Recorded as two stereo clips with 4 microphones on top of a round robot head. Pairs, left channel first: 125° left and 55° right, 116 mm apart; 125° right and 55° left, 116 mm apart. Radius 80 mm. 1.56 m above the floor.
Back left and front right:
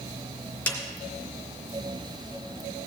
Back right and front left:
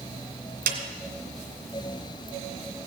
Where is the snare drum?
50° left, 2 m.